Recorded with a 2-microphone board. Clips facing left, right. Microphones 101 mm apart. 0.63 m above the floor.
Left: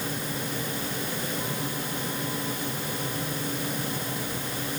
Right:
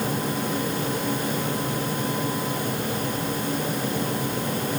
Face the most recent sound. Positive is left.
No sound to turn to.